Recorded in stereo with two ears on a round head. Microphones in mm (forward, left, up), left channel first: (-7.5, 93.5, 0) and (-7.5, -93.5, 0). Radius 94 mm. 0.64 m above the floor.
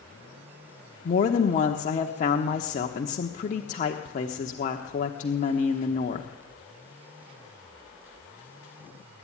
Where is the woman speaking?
40° left (ahead or behind), 1.3 m.